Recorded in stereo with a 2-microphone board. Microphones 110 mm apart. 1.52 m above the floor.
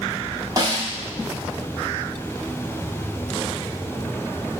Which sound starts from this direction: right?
A snare drum, at 0.6 s.